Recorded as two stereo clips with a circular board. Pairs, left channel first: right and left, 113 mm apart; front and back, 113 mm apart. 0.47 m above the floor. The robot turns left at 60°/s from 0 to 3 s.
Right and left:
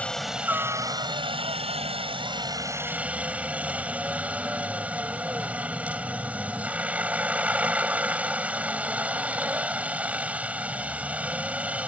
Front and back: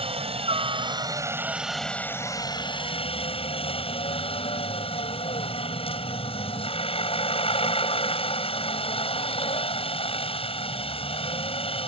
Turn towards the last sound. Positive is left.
turn(degrees=15)